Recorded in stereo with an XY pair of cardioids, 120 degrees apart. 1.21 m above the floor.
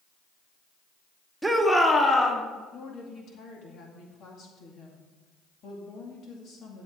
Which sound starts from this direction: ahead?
A shout, at 1.4 s.